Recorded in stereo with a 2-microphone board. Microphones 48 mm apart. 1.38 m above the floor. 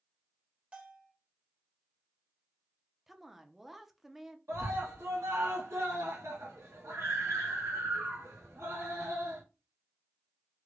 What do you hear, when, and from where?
0.7 s a bell: 25° right (ahead or behind), 1.3 m
3.1 s a woman speaking: 5° right (ahead or behind), 0.5 m
4.5 s a scream: 70° right (ahead or behind), 1.2 m